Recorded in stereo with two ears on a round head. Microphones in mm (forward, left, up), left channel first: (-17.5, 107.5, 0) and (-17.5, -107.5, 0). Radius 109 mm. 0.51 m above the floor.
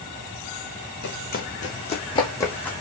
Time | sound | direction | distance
1.0 | running footsteps | 50° left (ahead or behind) | 2.0 m